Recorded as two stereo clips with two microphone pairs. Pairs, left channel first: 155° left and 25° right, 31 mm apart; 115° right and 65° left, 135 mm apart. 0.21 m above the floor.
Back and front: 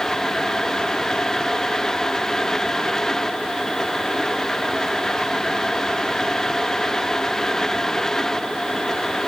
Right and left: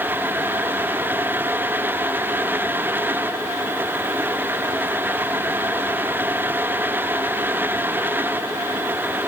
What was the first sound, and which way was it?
Only background noise.